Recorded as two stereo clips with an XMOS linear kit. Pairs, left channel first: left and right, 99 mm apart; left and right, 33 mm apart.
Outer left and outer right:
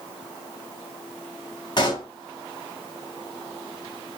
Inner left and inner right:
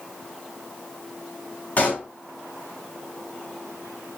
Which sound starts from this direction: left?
A pop, at 1.8 s.